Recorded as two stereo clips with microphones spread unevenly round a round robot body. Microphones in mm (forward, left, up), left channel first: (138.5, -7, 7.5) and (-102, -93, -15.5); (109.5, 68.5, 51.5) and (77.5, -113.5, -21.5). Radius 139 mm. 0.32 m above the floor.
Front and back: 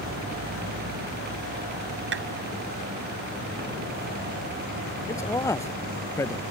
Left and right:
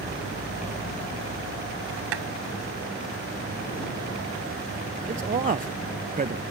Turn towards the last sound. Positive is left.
turn(degrees=-60)